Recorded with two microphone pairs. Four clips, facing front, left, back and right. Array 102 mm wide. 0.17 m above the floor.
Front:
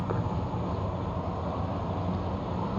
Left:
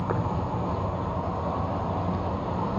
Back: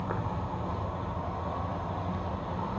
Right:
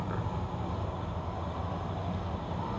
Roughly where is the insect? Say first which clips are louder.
Left 8 dB, front 2 dB; left.